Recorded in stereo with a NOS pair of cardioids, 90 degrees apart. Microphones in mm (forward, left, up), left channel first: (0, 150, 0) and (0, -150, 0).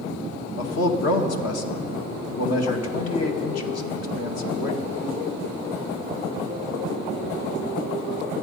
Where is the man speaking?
60° left, 2 m.